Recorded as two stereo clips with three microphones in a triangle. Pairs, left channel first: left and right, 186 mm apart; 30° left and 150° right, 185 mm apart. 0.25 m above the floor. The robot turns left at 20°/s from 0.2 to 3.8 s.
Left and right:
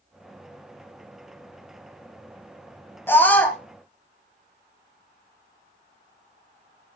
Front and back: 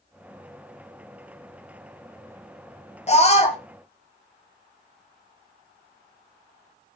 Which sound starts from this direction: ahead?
A scream, at 3.1 s.